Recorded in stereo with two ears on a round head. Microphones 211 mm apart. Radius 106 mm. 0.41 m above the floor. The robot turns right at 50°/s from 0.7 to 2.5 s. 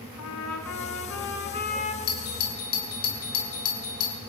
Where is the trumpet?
90° left, 4 m; by 2.0 s 150° left, 4 m.